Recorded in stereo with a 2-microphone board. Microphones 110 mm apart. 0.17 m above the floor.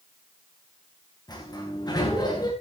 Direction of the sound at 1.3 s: 40° left (ahead or behind).